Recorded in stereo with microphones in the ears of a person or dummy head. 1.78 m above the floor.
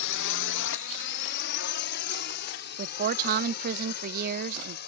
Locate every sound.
0.0 s a drone: 70° left (ahead or behind); by 4.9 s 55° left (ahead or behind)
2.8 s a woman speaking: 50° right (ahead or behind)